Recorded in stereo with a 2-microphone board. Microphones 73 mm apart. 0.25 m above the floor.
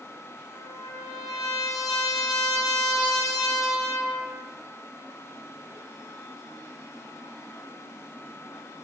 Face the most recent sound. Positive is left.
turn(degrees=55)  # may be behind; listen again after turning